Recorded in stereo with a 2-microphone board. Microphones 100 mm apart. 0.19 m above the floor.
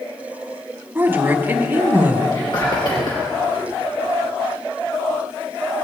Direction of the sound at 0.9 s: 20° right (ahead or behind).